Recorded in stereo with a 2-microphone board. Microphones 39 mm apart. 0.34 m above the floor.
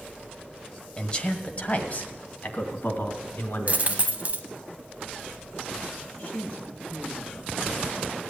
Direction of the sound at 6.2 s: 35° left (ahead or behind).